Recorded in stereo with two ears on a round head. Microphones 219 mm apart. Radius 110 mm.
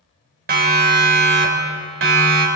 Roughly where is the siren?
Right.